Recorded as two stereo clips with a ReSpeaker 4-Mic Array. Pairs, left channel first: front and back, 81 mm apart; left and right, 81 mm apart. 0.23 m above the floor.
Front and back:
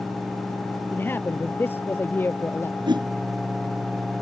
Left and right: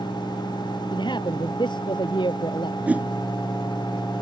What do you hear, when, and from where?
0.9 s a man speaking: 65° left
2.9 s a whoosh: 165° right